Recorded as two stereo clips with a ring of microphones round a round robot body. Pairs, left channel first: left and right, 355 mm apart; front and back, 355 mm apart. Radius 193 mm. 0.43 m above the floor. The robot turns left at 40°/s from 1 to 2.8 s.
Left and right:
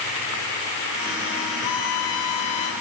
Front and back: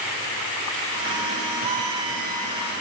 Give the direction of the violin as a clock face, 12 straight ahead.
7 o'clock.